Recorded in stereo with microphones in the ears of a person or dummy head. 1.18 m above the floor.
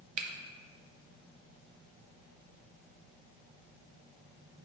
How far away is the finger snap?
About 0.6 m.